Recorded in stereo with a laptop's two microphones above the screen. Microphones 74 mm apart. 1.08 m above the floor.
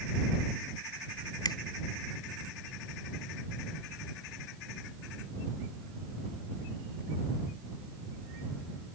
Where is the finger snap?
85° left.